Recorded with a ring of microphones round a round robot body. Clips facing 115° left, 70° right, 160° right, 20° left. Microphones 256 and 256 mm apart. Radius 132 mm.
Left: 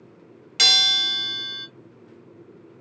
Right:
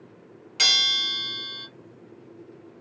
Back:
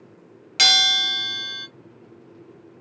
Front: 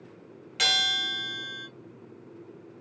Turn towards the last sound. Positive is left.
turn(degrees=170)